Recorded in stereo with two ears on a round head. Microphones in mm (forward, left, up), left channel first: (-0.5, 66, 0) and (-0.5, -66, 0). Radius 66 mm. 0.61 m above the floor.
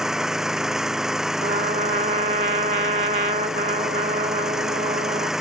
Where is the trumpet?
55° right (ahead or behind).